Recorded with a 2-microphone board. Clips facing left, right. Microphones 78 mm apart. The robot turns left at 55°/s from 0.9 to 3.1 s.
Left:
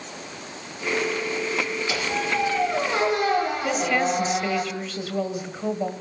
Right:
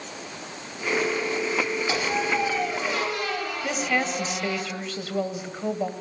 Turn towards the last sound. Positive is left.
turn(degrees=0)  # may be behind; listen again after turning